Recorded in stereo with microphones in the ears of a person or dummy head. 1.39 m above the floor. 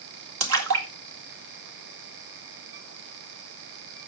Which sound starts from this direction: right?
A splash, at 0.4 s.